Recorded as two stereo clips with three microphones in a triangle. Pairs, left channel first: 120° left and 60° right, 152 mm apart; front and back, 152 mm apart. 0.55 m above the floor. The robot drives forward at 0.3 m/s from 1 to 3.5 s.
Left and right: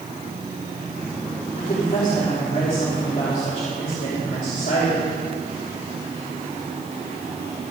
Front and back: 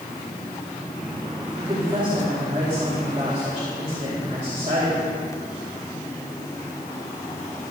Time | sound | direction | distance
1.6 | a woman speaking | 125° left | 2.5 m